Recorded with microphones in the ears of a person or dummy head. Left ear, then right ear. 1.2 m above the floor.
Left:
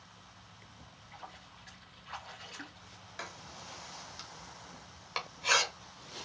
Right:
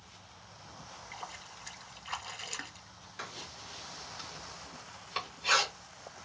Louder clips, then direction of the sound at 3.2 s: Right 2 dB; 10° left (ahead or behind).